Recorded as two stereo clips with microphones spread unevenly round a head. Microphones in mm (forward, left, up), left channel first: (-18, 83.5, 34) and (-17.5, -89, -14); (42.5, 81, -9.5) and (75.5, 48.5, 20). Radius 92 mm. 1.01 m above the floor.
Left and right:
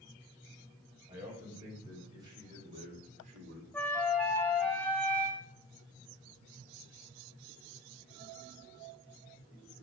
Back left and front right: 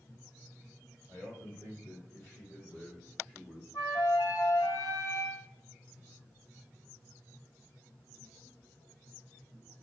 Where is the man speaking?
170° right, 4.5 m; by 3.6 s 130° right, 3 m.